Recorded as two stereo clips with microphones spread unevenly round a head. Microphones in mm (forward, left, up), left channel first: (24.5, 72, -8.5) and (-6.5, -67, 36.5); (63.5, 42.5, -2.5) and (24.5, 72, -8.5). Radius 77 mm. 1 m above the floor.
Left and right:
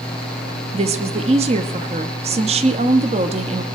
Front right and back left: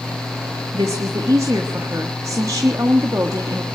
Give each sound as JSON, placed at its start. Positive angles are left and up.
{"t": 0.7, "sound": "a woman speaking", "azimuth_deg": -155, "distance_m": 1.2}